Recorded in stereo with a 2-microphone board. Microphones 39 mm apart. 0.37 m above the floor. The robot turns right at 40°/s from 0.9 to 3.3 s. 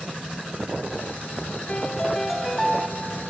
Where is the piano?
155° left, 1.2 m; by 2.9 s 160° right, 1.2 m.